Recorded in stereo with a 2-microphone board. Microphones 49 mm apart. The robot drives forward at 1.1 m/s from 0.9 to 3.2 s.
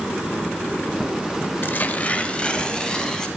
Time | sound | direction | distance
1.6 | tearing paper | 45° left (ahead or behind) | 0.8 m